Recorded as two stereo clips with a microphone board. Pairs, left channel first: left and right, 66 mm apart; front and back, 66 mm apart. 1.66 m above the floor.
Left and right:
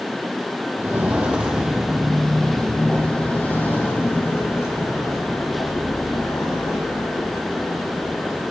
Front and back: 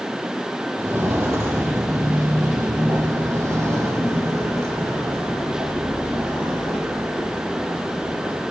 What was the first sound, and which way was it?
Footsteps, 135° right.